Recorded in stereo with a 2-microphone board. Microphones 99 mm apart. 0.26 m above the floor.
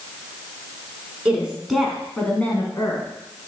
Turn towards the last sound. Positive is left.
turn(degrees=30)  # may be behind; listen again after turning